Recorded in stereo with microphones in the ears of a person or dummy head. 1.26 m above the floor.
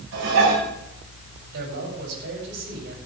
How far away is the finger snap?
No finger snap in this recording.